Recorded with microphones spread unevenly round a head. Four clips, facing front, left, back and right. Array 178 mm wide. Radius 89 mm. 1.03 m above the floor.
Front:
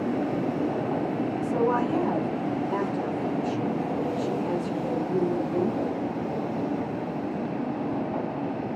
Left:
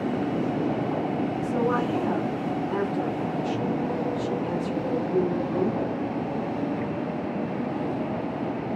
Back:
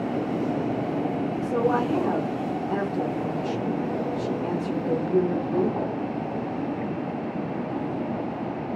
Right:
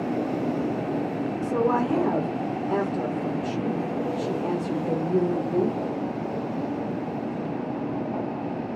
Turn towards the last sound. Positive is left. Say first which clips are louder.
# right 4 dB, back 1 dB
turn(degrees=-110)